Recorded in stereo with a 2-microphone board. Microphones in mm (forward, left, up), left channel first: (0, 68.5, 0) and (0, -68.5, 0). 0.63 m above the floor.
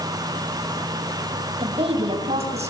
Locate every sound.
1.6 s a woman speaking: 40° right (ahead or behind), 3.5 m; by 2.7 s 55° right (ahead or behind), 4 m